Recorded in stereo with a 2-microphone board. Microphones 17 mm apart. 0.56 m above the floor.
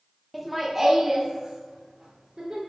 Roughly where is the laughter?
Centre.